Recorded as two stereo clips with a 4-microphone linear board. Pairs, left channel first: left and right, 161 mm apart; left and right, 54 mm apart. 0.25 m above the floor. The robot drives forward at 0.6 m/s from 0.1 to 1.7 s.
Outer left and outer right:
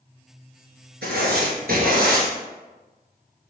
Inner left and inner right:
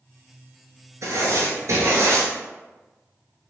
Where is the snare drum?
I don't hear a snare drum.